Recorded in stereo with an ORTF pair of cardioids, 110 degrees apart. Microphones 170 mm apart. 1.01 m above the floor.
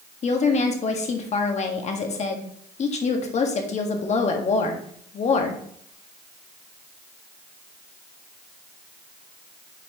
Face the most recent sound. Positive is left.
turn(degrees=40)